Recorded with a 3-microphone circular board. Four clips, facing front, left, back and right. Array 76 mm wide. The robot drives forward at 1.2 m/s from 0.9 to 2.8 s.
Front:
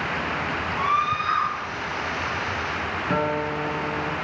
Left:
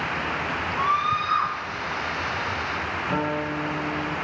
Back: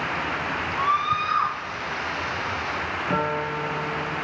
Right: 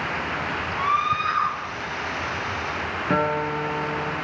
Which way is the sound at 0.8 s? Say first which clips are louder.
Right 1 dB, even; 50° right.